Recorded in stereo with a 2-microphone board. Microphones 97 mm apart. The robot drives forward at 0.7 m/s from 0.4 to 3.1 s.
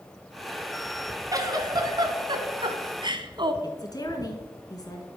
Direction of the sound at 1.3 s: 40° right (ahead or behind).